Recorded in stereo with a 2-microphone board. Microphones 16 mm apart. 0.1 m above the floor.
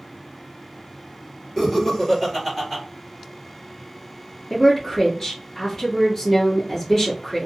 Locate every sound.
1.6 s laughter: 40° left (ahead or behind), 1.9 m; by 2.8 s 15° left (ahead or behind), 1.5 m
4.5 s a woman speaking: 20° left (ahead or behind), 1.3 m